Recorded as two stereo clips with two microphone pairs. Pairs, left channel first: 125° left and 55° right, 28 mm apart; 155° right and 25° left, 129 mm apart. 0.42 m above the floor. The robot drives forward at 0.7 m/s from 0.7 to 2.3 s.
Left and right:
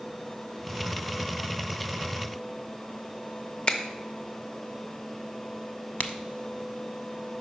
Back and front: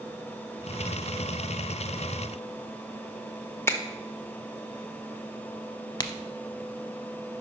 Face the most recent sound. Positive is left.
turn(degrees=145)